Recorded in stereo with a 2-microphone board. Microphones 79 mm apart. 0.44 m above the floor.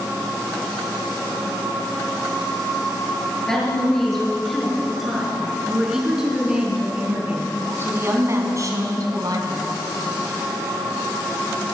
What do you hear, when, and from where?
3.5 s a woman speaking: 5° left (ahead or behind), 9 m; by 9.9 s 65° right (ahead or behind), 4 m